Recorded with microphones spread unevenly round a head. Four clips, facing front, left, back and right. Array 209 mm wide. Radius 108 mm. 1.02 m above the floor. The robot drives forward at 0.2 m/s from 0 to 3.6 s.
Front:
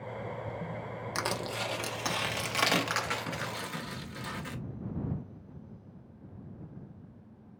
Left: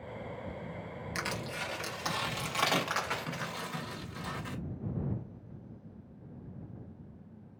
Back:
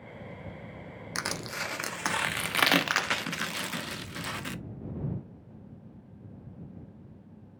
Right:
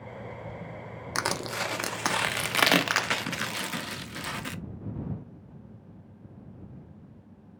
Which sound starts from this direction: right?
Crushing, at 1.1 s.